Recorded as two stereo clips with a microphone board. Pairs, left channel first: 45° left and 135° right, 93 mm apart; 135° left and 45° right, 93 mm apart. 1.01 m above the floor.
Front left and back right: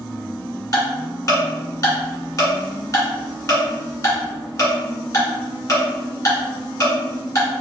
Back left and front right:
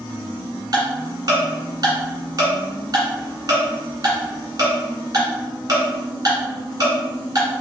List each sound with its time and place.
0.7 s ticking: 5° right, 1.8 m